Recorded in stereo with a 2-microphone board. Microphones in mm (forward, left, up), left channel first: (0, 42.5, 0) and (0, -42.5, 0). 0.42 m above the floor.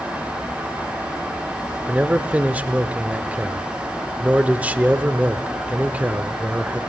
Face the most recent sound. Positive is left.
turn(degrees=-20)  # may be behind; listen again after turning